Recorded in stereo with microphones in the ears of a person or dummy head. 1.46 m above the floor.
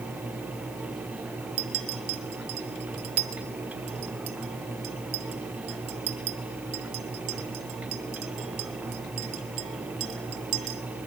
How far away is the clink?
About 1.2 m.